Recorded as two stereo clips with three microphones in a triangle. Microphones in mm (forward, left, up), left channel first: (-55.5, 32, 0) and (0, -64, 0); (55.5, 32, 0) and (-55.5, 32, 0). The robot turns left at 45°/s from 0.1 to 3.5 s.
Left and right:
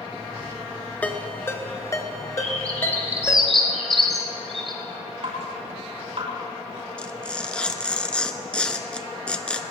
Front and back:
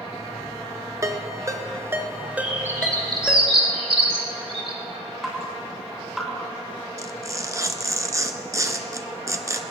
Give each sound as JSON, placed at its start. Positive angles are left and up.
{"t": 1.0, "sound": "a ringtone", "azimuth_deg": 180, "distance_m": 1.2}
{"t": 2.4, "sound": "a bird", "azimuth_deg": -100, "distance_m": 3.5}
{"t": 5.2, "sound": "dripping", "azimuth_deg": -90, "distance_m": 6.0}
{"t": 7.0, "sound": "tearing paper", "azimuth_deg": -170, "distance_m": 0.9}